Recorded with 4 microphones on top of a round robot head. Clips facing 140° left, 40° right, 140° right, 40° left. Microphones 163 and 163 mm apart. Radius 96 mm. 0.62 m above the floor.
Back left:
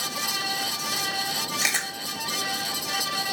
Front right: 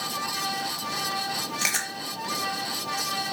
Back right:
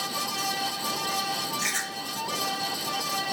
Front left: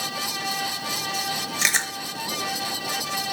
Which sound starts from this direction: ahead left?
Chewing, at 1.6 s.